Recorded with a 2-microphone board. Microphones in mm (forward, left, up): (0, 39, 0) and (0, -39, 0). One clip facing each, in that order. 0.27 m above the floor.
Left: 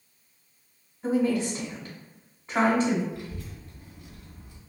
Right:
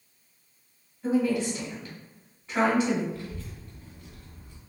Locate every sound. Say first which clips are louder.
1.0 s a woman speaking: even; 30° left (ahead or behind), 1.7 m
3.1 s a child speaking: even; 15° left (ahead or behind), 1.7 m